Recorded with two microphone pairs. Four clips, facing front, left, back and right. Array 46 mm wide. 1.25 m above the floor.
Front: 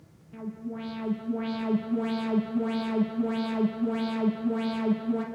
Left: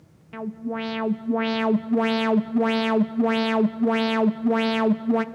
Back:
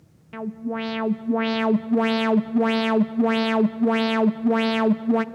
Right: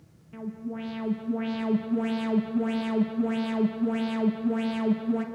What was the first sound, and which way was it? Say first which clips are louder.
An alarm: left 6 dB, back 8 dB; 140° left.